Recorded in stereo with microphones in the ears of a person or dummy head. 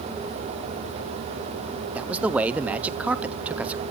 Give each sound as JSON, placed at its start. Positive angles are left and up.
{"t": 1.9, "sound": "a man speaking", "side_deg": -10, "distance_m": 0.7}